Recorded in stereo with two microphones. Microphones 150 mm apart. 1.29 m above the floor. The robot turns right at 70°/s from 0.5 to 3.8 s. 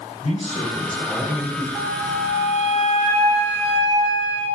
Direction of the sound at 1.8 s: 175° left.